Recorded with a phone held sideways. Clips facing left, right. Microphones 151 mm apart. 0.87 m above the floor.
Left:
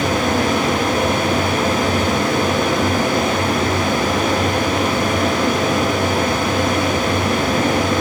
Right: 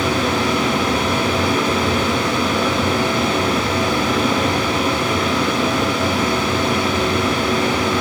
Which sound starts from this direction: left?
A fan, at 0.0 s.